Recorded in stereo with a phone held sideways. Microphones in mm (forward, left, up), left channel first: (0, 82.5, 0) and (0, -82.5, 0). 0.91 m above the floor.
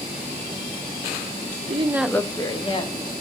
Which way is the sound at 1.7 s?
45° right (ahead or behind).